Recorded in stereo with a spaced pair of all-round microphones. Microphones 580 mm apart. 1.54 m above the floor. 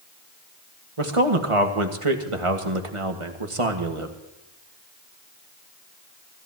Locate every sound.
1.0 s a man speaking: 60° right (ahead or behind), 1.6 m